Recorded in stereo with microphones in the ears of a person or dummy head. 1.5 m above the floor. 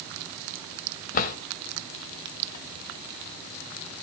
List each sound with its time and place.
1.1 s a drawer: 45° left (ahead or behind), 2 m